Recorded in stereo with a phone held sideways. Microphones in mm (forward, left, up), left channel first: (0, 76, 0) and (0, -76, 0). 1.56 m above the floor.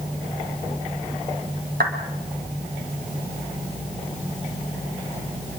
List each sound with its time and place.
1.8 s a clap: 85° right, 5 m